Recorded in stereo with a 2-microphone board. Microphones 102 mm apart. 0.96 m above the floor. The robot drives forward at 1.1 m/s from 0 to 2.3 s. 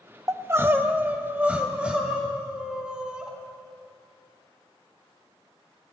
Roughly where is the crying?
Right.